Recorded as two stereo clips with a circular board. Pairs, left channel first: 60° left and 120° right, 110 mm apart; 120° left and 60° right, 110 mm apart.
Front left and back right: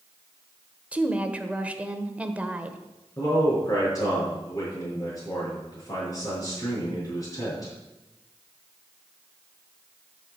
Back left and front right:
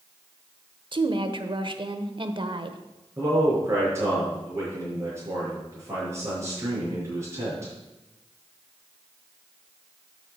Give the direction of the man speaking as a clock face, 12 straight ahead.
12 o'clock.